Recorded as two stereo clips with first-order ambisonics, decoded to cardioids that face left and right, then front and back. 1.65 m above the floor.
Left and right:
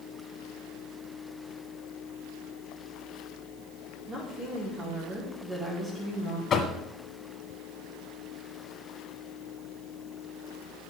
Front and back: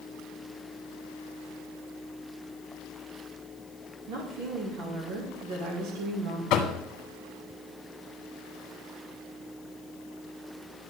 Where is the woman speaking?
160° right, 2 m.